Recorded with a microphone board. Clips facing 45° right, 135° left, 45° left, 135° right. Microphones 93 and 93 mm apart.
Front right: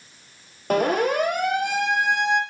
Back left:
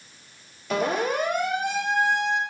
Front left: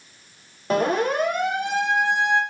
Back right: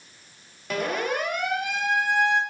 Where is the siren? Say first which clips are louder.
Front right 4 dB, front left 6 dB; 10° right, 5.5 m; by 2.4 s 25° right, 4.5 m.